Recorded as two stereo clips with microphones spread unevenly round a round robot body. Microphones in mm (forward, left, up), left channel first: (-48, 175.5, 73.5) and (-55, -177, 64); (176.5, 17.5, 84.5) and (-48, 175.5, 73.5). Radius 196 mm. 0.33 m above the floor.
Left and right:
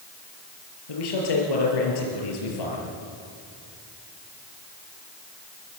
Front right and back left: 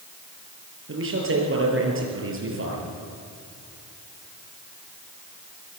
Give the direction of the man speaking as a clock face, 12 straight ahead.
9 o'clock.